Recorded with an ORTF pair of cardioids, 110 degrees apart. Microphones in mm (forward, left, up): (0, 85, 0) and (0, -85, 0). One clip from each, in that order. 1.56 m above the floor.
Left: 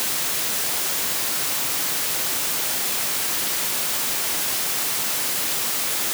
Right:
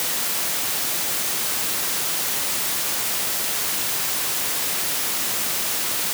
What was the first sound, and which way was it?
Only background noise.